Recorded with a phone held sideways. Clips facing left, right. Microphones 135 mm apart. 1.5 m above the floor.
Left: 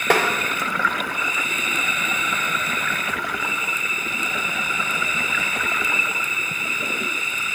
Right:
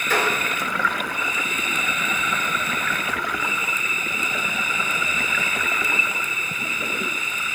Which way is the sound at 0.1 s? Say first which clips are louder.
Left 4 dB; 85° left.